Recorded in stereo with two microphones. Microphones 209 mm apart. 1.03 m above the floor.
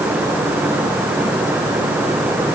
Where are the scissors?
No scissors in this recording.